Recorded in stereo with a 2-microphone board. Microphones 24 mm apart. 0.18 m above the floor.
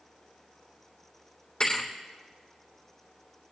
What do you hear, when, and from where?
1.6 s a thud: 35° left (ahead or behind), 3.5 m